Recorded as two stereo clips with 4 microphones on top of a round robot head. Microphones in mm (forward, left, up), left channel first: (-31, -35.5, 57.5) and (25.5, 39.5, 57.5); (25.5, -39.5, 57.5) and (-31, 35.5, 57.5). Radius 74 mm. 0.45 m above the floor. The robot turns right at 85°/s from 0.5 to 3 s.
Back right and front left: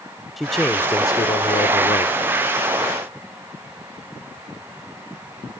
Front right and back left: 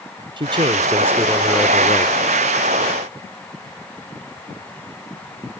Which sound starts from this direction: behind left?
A man speaking, at 0.4 s.